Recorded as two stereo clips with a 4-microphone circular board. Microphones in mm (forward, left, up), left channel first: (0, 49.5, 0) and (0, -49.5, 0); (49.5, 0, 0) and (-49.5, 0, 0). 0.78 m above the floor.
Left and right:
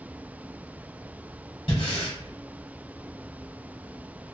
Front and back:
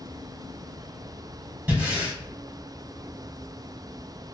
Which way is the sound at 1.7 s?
105° left.